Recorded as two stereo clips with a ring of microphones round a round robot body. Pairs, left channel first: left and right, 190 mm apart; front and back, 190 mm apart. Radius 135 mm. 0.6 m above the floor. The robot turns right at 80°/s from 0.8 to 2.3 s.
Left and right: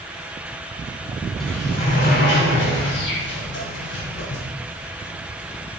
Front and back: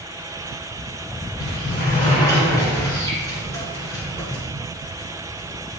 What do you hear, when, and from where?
1.4 s a sliding door: straight ahead, 5.5 m; by 4.4 s 75° left, 5.5 m